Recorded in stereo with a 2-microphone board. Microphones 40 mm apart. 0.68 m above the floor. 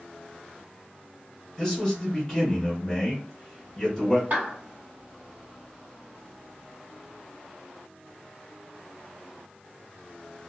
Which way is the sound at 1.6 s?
5° left (ahead or behind).